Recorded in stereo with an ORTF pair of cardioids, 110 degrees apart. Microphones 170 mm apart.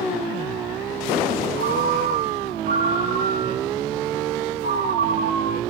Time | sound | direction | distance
1.6 | a ringtone | 55° right | 3.5 m